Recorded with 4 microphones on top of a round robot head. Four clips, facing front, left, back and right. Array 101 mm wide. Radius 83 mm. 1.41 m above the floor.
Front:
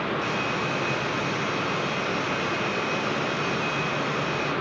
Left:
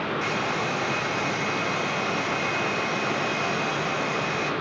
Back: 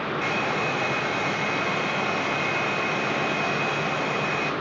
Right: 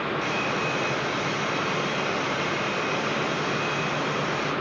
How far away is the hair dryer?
About 2 m.